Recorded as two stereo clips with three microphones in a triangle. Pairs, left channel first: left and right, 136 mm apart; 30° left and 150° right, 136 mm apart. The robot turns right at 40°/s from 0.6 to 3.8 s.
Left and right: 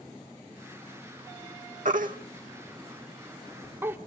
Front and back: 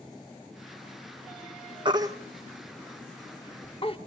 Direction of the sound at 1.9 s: 95° right.